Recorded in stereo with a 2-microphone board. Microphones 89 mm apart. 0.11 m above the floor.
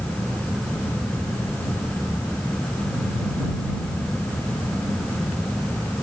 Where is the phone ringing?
I don't hear a phone ringing.